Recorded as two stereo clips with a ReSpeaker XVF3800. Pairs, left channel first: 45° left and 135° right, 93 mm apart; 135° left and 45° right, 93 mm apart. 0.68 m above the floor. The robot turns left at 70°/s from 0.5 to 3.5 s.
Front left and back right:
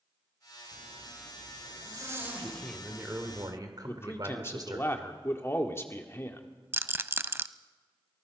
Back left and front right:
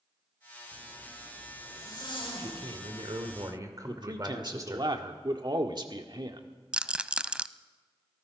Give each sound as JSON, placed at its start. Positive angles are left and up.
{"t": 0.7, "sound": "a zipper", "azimuth_deg": -100, "distance_m": 9.0}
{"t": 2.4, "sound": "a man speaking", "azimuth_deg": -15, "distance_m": 2.0}
{"t": 3.9, "sound": "a man speaking", "azimuth_deg": -15, "distance_m": 1.7}
{"t": 6.7, "sound": "a rattle", "azimuth_deg": -110, "distance_m": 0.5}